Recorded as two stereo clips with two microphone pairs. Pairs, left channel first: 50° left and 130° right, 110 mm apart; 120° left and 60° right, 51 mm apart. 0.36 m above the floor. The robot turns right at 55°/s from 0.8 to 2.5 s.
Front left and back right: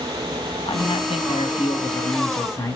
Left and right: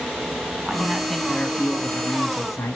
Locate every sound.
0.7 s a man speaking: 20° left, 3 m; by 2.8 s 115° left, 3 m